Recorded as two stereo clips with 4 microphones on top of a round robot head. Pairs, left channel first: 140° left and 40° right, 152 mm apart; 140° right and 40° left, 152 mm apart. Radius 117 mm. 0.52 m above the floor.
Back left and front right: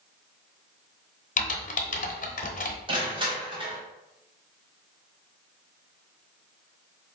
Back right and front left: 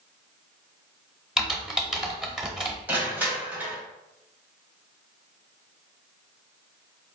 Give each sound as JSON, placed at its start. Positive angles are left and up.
{"t": 1.4, "sound": "typing on a keyboard", "azimuth_deg": 130, "distance_m": 0.8}
{"t": 2.9, "sound": "crushing", "azimuth_deg": -25, "distance_m": 1.3}